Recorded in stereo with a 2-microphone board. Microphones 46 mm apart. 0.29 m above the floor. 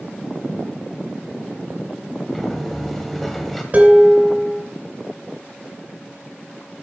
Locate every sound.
2.3 s a sliding door: 5° left (ahead or behind), 1.4 m
3.7 s dishes clattering: 35° right (ahead or behind), 2 m